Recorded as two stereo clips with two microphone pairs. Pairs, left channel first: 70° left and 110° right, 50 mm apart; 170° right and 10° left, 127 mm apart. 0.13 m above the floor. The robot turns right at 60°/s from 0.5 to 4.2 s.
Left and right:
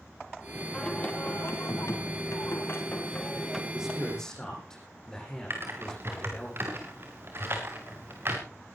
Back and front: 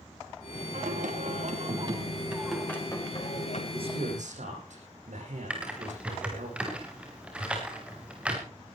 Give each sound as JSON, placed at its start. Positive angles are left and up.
{"t": 0.7, "sound": "singing", "azimuth_deg": -5, "distance_m": 5.0}
{"t": 3.7, "sound": "a man speaking", "azimuth_deg": -35, "distance_m": 9.0}
{"t": 5.5, "sound": "typing on a keyboard", "azimuth_deg": -70, "distance_m": 5.5}